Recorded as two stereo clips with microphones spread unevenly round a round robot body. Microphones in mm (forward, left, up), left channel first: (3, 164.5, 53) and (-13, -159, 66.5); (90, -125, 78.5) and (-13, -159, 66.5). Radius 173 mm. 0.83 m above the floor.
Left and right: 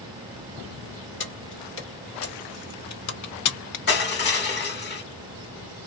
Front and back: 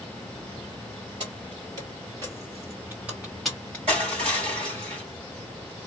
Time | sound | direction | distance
1.2 | keys jangling | 140° left | 2 m
3.9 | crushing | 145° left | 3 m